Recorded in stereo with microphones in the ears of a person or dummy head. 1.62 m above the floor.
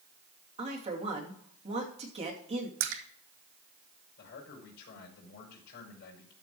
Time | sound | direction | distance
0.6 | a woman speaking | 30° right (ahead or behind) | 2.5 m
2.8 | a splash | 60° right (ahead or behind) | 1.3 m
4.2 | a man speaking | 55° left (ahead or behind) | 5 m